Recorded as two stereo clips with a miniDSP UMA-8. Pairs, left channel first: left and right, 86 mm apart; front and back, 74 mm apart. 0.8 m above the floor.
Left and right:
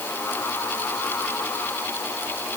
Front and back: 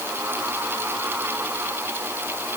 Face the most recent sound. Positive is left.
No sound to turn to.